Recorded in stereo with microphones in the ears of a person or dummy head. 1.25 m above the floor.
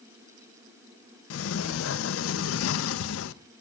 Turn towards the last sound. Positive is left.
turn(degrees=85)